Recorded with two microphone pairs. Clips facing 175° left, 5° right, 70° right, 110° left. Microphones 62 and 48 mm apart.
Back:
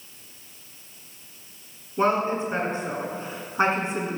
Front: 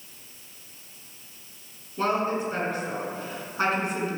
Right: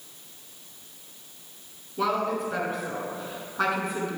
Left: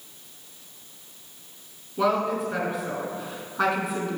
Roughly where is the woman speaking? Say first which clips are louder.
Back 3 dB, left 3 dB; behind.